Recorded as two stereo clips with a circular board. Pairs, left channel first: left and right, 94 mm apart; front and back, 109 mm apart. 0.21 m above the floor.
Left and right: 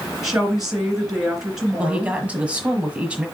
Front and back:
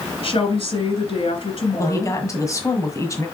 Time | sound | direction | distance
0.2 | a woman speaking | 5° right | 2.5 m
1.8 | a woman speaking | 25° right | 1.5 m